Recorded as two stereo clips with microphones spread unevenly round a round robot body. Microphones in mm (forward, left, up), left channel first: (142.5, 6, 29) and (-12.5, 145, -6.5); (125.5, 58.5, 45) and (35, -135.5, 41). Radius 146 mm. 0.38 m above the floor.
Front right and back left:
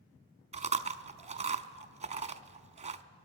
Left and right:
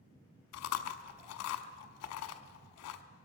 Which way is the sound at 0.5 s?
75° left.